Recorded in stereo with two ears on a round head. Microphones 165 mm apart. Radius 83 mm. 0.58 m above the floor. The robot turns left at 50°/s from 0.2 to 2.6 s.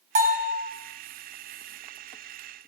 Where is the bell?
40° right (ahead or behind), 3 m; by 0.5 s 55° right (ahead or behind), 3 m.